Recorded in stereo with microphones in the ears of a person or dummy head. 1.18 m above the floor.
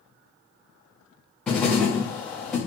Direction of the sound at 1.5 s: 5° left (ahead or behind).